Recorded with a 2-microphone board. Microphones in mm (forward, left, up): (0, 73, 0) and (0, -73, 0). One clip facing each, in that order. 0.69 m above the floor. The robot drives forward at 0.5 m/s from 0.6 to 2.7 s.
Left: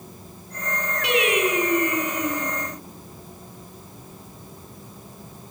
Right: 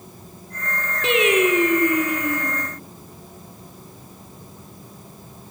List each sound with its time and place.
1.0 s singing: 25° right (ahead or behind), 6 m; by 2.5 s 20° right (ahead or behind), 7 m